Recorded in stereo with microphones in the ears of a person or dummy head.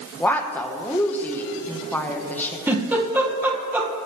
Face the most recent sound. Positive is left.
turn(degrees=-10)  # may be behind; listen again after turning